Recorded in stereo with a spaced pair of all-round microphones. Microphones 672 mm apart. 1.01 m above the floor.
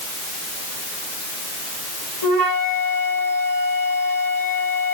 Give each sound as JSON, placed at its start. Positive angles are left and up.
{"t": 2.2, "sound": "a flute", "side_deg": -50, "distance_m": 3.0}